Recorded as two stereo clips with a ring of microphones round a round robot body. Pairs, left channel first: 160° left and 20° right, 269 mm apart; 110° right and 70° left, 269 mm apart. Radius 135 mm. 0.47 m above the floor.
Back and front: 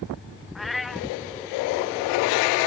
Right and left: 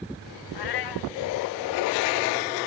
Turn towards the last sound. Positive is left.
turn(degrees=-110)